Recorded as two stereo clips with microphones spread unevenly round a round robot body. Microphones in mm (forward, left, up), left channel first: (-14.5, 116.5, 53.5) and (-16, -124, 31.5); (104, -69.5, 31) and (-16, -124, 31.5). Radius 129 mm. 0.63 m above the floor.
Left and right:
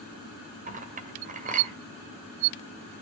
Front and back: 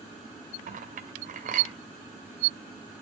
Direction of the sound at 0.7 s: 150° right.